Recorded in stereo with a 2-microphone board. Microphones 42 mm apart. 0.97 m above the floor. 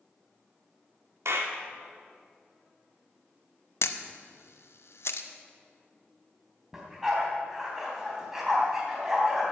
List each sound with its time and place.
1.2 s a clap: 75° right (ahead or behind), 1.5 m
3.8 s a camera shutter: 70° left (ahead or behind), 0.8 m
6.7 s a dog barking: 10° right (ahead or behind), 3 m